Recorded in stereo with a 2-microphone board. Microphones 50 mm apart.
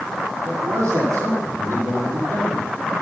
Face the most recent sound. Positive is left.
turn(degrees=-70)  # may be behind; listen again after turning